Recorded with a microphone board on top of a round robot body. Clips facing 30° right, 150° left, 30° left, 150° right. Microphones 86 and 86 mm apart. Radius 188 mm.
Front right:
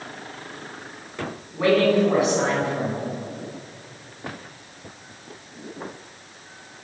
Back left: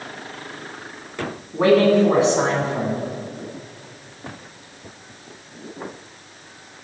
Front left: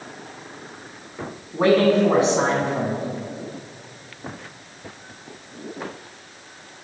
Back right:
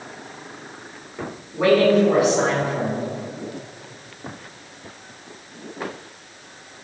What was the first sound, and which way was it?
A man speaking, 90° left.